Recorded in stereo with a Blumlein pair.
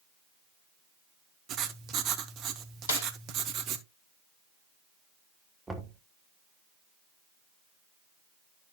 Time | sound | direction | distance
1.5 | writing | 35° right | 1.0 m
2.9 | a snare drum | 70° left | 1.6 m
5.7 | knocking | 10° right | 1.5 m